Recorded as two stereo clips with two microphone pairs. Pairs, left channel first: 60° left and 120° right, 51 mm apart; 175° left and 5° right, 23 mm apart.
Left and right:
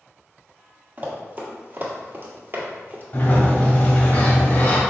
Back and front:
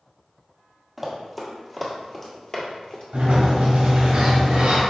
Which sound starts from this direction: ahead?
A sliding door, at 3.1 s.